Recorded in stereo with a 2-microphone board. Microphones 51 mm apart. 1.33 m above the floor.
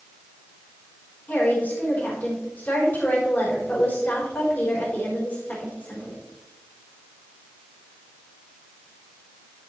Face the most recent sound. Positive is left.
turn(degrees=35)  # may be behind; listen again after turning